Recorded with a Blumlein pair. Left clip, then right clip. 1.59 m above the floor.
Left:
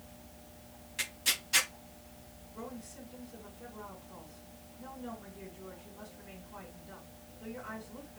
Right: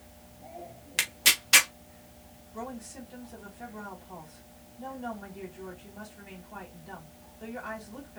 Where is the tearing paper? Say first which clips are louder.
Right 8 dB; 50° right, 1.1 m.